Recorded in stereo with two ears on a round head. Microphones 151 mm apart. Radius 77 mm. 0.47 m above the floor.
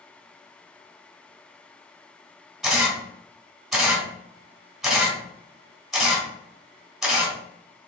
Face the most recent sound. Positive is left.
turn(degrees=0)  # may be behind; listen again after turning